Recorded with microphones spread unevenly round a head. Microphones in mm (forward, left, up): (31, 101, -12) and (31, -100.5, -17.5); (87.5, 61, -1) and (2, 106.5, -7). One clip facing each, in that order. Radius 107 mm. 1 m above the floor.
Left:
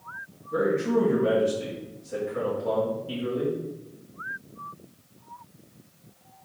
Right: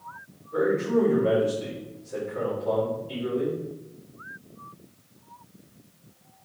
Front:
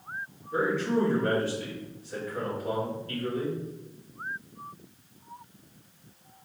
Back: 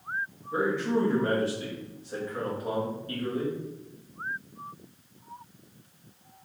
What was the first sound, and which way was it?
A man speaking, 95° left.